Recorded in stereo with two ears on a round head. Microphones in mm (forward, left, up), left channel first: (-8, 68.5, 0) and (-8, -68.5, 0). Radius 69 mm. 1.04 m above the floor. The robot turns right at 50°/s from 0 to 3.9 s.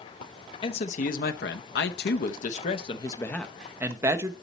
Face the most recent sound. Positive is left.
turn(degrees=-165)